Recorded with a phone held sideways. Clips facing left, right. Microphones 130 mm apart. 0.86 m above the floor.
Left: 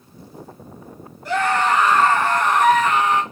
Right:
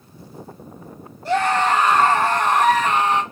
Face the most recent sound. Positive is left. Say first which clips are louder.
# right 1 dB
turn(degrees=-30)  # may be behind; listen again after turning